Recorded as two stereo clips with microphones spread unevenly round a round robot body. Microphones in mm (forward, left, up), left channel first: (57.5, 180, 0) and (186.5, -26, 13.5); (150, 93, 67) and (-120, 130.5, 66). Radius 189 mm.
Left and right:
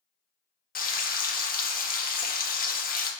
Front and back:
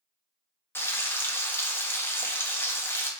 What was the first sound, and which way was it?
Frying, 75° left.